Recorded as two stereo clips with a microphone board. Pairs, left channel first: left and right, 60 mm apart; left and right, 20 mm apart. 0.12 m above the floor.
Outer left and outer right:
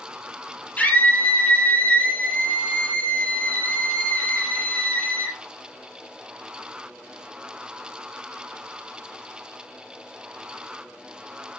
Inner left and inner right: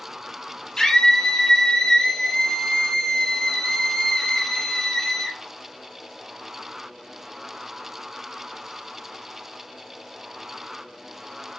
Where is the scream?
25° left (ahead or behind), 2.5 m.